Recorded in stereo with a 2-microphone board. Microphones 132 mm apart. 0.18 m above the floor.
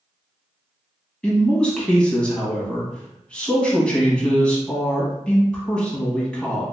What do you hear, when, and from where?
1.2 s a man speaking: 10° left (ahead or behind), 1.1 m